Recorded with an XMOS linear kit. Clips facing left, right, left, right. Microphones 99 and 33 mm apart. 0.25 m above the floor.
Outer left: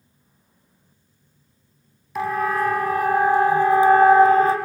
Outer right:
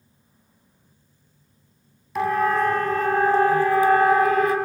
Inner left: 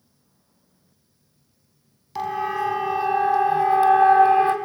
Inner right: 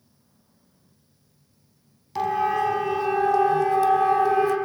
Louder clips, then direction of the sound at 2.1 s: Outer right 2 dB, inner right 2 dB; centre (ahead or behind).